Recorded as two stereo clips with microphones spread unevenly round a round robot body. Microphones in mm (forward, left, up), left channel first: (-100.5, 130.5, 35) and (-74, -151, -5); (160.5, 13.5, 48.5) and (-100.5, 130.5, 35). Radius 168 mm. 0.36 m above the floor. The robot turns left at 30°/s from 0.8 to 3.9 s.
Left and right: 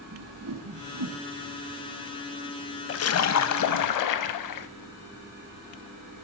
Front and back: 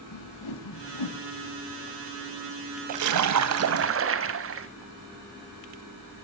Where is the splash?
140° left, 0.9 m; by 4.7 s 110° left, 0.9 m.